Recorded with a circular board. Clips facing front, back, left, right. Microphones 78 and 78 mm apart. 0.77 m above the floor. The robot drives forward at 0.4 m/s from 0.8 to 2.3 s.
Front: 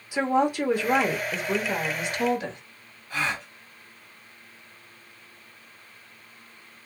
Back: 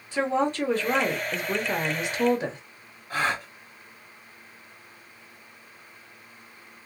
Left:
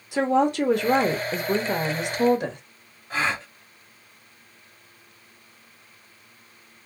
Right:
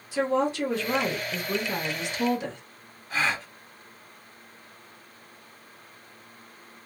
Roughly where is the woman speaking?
Left.